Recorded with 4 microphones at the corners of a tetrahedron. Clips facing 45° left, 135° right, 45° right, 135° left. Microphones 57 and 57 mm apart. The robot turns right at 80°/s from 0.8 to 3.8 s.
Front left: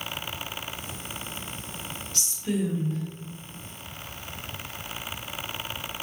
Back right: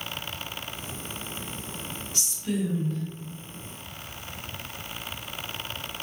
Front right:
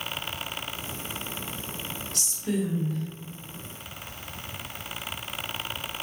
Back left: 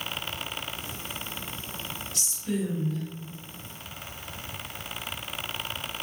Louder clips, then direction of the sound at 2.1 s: Front left 1 dB, front right 2 dB; 65° right.